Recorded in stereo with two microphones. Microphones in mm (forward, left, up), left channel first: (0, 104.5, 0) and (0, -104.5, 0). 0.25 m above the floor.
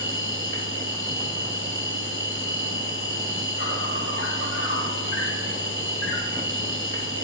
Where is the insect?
80° left, 1.5 m.